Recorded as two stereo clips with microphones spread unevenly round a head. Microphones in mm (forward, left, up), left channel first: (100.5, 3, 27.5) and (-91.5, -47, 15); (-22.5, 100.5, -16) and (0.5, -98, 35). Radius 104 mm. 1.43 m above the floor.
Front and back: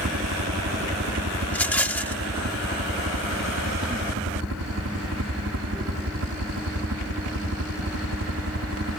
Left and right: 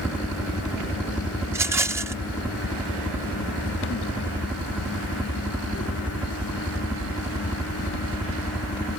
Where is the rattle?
55° right.